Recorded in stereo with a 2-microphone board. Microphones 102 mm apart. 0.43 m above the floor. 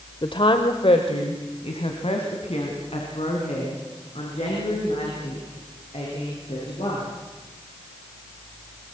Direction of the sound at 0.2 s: 50° left (ahead or behind).